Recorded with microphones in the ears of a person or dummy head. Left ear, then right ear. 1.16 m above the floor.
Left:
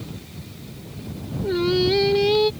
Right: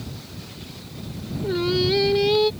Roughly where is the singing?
Centre.